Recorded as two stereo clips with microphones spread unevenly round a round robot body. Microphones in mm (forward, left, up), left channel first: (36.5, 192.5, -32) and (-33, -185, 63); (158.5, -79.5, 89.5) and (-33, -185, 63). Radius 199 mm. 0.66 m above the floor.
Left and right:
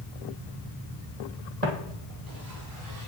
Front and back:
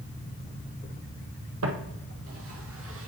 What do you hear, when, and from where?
1.6 s footsteps: 160° right, 1.6 m; by 3.1 s 125° right, 1.8 m